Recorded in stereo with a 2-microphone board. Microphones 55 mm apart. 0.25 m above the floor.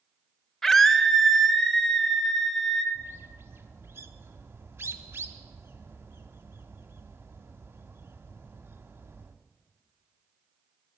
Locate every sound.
0.6 s a scream: 10° left (ahead or behind), 1.1 m
3.0 s a bird: 50° right (ahead or behind), 0.9 m